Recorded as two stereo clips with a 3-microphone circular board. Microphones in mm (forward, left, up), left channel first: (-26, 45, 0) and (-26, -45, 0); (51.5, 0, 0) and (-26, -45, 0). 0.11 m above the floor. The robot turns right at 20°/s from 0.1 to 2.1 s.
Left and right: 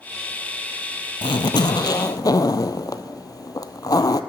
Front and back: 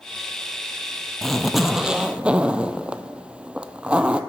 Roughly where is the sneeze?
No sneeze in this recording.